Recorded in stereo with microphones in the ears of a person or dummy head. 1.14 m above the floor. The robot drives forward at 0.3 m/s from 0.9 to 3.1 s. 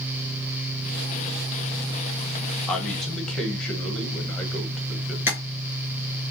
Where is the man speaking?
10° left (ahead or behind), 0.9 m; by 5.2 s 5° left (ahead or behind), 1.1 m.